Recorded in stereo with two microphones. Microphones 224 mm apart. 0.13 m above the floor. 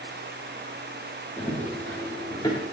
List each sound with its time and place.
1.4 s running footsteps: 10° left (ahead or behind), 8 m; by 2.6 s 15° left (ahead or behind), 7.5 m